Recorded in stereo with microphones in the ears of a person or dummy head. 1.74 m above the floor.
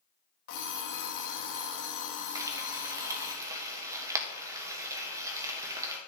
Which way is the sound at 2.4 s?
15° right (ahead or behind).